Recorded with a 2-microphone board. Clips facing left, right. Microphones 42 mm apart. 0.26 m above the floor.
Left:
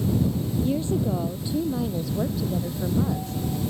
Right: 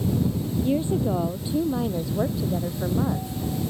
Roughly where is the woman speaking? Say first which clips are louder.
Right 2 dB; right.